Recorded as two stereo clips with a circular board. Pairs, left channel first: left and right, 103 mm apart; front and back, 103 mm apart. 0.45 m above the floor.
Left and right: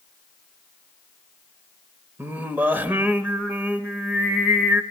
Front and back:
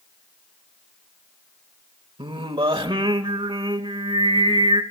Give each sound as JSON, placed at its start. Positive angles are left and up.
{"t": 2.2, "sound": "singing", "azimuth_deg": -160, "distance_m": 1.0}